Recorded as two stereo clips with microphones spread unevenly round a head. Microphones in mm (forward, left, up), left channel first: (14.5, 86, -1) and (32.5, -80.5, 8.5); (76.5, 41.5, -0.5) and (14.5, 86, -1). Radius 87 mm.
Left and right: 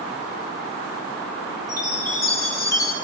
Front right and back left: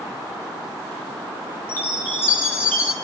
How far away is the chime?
About 6.5 m.